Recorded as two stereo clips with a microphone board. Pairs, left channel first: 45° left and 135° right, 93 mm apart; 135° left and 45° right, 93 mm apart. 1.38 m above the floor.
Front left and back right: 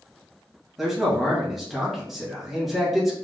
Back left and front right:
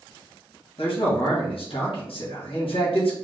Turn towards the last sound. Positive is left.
turn(degrees=140)